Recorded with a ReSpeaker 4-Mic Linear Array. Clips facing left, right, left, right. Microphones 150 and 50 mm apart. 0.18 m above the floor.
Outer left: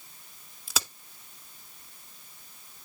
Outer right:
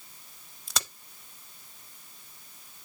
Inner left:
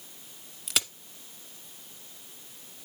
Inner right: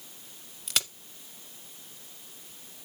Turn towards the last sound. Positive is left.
turn(degrees=5)  # may be behind; listen again after turning